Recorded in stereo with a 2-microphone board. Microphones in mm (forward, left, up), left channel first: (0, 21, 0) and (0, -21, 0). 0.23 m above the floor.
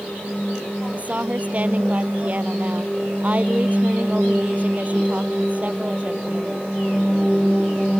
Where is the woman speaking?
35° right (ahead or behind).